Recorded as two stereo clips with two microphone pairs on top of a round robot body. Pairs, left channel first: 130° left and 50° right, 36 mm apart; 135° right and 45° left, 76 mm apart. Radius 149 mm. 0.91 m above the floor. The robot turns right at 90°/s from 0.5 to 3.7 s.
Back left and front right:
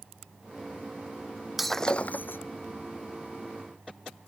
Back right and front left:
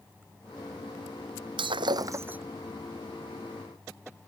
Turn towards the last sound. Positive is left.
turn(degrees=-130)